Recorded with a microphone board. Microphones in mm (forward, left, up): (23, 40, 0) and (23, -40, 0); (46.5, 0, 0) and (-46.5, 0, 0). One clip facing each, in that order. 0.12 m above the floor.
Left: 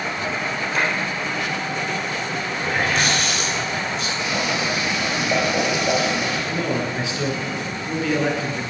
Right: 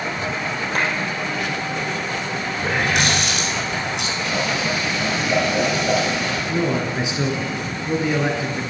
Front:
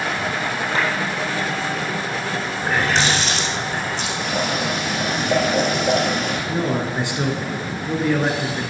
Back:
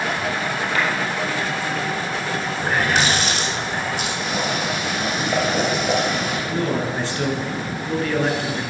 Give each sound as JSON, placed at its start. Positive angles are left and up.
{"t": 0.8, "sound": "a clap", "azimuth_deg": -60, "distance_m": 3.0}
{"t": 2.6, "sound": "a running tap", "azimuth_deg": -100, "distance_m": 4.0}
{"t": 4.2, "sound": "boiling", "azimuth_deg": 20, "distance_m": 3.0}
{"t": 6.5, "sound": "a man speaking", "azimuth_deg": -50, "distance_m": 1.2}